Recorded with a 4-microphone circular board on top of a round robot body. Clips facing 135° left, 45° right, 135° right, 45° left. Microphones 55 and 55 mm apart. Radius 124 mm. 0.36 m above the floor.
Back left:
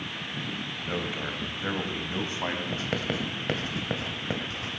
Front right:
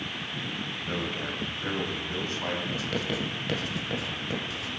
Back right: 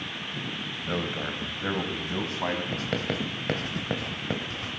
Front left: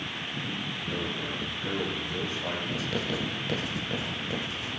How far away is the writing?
About 2.5 m.